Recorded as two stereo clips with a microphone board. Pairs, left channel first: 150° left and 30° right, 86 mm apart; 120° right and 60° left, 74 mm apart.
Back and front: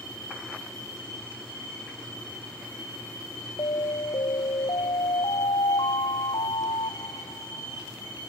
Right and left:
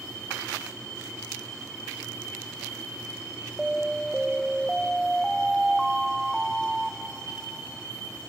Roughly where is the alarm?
Behind left.